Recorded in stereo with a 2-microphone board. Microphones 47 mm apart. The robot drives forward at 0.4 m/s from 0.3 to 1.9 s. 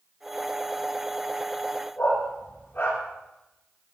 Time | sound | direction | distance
2.0 | a dog barking | 50° left (ahead or behind) | 6.5 m